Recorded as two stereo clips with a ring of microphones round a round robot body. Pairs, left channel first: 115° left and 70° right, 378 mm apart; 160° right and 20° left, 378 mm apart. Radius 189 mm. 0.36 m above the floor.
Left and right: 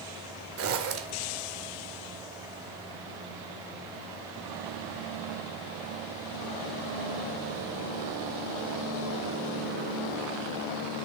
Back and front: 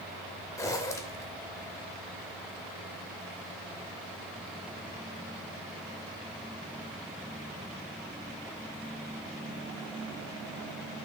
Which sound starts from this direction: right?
A zipper, at 0.6 s.